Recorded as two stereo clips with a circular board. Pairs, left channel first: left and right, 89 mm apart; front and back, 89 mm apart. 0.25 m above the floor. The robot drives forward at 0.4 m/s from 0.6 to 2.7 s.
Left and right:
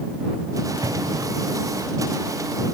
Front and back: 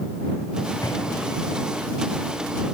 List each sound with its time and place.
0.8 s an explosion: 50° right